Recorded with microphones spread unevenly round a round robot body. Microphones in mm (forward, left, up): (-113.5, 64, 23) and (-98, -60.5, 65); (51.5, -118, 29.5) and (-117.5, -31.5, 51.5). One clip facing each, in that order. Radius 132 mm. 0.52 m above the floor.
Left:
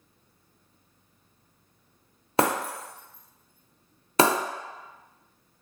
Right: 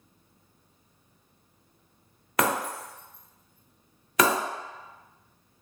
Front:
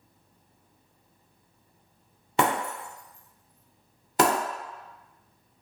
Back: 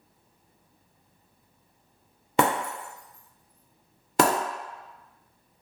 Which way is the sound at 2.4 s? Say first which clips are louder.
Left 2 dB, back 2 dB; 160° left.